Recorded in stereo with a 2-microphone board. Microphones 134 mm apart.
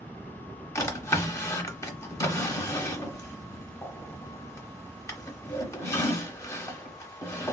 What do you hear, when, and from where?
0.8 s a drawer: 20° left (ahead or behind), 0.8 m